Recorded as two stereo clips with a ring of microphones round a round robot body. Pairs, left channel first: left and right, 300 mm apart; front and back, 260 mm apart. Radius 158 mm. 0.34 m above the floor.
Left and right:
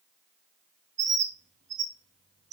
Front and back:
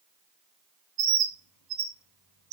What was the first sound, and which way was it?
A bird, 155° right.